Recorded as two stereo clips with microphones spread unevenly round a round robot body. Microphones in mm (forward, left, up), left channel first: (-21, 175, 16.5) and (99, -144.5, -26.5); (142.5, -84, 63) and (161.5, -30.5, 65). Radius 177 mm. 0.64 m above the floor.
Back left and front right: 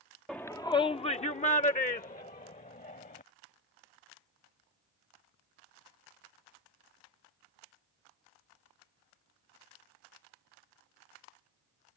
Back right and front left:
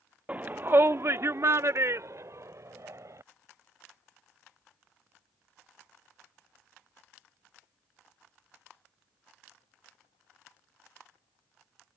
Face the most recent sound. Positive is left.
turn(degrees=45)